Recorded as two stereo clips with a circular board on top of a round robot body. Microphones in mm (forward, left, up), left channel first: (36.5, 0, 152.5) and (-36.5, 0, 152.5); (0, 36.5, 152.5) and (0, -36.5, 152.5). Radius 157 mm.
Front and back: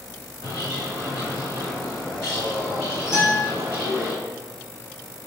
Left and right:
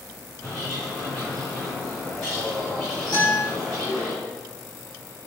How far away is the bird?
About 1.3 m.